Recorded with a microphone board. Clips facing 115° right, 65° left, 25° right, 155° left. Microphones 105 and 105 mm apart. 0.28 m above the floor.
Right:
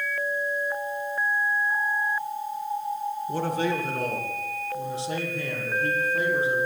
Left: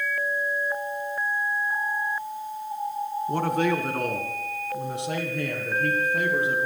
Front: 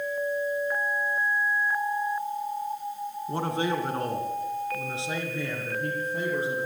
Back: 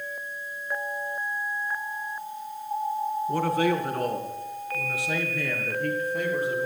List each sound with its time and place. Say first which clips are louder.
3.3 s a man speaking: left 3 dB, back 3 dB; 40° left, 2.5 m